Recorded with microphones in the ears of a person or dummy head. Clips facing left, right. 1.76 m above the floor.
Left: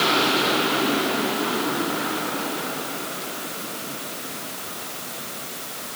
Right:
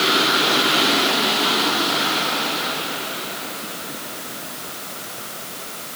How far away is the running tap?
I don't hear a running tap.